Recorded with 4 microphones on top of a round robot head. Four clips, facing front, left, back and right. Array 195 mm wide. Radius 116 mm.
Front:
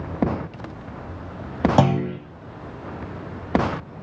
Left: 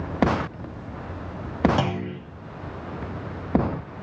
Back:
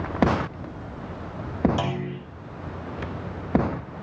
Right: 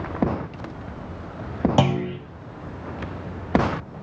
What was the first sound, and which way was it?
A clunk, 25° right.